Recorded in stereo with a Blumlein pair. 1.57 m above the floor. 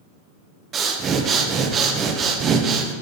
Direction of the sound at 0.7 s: 25° right.